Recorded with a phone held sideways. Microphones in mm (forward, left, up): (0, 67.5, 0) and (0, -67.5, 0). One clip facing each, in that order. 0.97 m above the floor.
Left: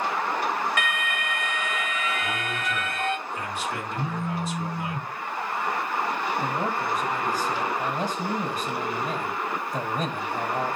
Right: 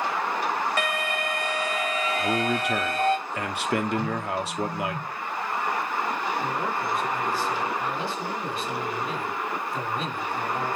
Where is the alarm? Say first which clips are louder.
Right 2 dB; 35° right (ahead or behind), 1.5 m.